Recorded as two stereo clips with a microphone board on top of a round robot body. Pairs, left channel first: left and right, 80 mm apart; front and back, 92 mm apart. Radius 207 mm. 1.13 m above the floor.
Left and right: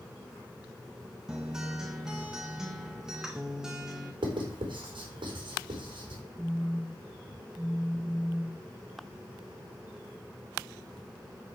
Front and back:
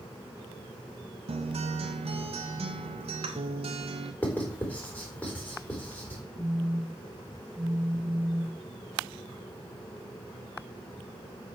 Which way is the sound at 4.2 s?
75° right.